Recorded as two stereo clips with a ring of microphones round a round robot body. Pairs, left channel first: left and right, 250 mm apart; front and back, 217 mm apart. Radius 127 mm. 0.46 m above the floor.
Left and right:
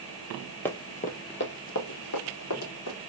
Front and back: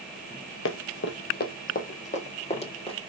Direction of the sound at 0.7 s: 10° left.